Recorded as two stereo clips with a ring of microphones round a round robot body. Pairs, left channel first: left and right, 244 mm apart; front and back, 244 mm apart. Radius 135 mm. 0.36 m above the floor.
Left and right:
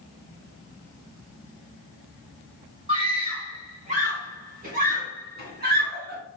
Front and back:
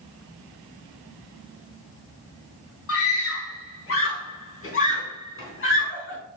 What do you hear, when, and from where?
2.9 s a scream: 20° right, 2.5 m; by 6.2 s 35° right, 4 m